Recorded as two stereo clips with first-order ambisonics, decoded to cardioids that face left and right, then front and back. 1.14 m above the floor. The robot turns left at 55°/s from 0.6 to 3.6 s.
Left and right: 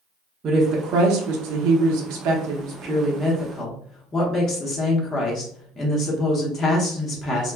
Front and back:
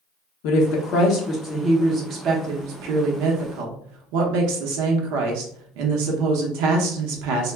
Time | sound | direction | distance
0.4 | a woman speaking | 25° right | 0.7 m